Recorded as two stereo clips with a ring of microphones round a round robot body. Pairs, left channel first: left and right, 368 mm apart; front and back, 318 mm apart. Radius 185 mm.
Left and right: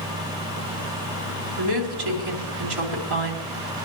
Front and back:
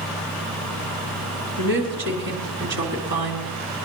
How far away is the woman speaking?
About 3.5 m.